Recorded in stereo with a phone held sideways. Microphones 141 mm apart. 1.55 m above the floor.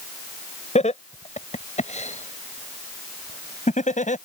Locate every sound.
0.8 s laughter: 55° left (ahead or behind); by 4.2 s 65° left (ahead or behind)